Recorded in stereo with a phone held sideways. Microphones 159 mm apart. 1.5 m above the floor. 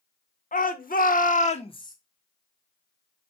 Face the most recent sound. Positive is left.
turn(degrees=25)  # may be behind; listen again after turning